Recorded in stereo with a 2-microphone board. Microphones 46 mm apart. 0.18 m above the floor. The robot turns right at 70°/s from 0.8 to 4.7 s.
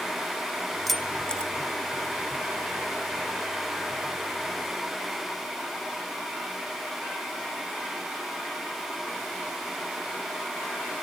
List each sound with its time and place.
0.9 s keys jangling: centre (ahead or behind), 0.8 m; by 1.5 s 25° left (ahead or behind), 0.8 m